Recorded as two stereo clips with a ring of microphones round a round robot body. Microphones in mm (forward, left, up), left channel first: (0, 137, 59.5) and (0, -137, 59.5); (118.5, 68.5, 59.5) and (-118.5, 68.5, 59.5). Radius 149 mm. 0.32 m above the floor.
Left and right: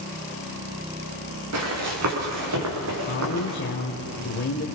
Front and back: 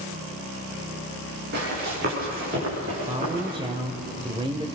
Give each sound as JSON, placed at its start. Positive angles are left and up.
{"t": 1.5, "sound": "running footsteps", "azimuth_deg": -125, "distance_m": 6.5}
{"t": 3.1, "sound": "a man speaking", "azimuth_deg": 115, "distance_m": 1.3}